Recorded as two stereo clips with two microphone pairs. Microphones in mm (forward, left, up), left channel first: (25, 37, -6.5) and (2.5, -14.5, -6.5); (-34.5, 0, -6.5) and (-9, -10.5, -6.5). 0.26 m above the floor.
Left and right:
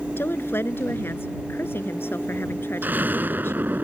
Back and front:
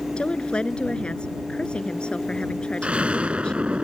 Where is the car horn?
I don't hear a car horn.